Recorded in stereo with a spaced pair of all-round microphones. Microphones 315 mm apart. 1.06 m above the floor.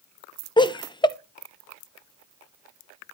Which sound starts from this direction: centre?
Laughter, at 0.6 s.